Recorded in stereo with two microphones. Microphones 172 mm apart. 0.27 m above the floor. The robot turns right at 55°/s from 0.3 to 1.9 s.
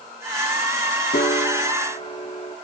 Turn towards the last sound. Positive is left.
turn(degrees=145)